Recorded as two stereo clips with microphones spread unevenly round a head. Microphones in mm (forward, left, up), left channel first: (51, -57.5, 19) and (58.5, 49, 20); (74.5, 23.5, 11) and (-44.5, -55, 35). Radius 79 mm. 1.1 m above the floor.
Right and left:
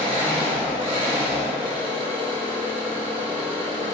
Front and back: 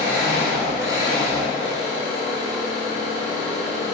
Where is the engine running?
145° left, 3.5 m.